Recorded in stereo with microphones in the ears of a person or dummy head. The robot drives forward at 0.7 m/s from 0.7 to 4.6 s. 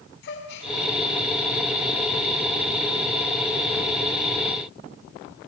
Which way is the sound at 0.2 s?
75° left (ahead or behind).